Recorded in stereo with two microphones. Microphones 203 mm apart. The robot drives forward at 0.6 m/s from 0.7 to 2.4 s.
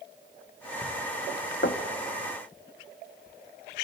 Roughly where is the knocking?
Left.